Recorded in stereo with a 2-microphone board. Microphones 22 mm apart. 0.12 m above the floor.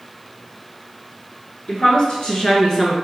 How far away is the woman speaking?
About 1.6 m.